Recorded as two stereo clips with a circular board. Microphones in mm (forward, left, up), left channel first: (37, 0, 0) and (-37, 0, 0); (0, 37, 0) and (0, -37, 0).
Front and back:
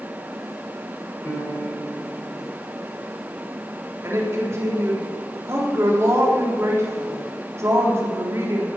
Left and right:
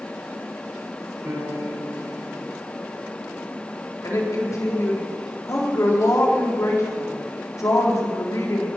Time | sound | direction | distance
1.2 | a piano | 50° right | 7.5 m
4.0 | a woman speaking | 130° left | 4 m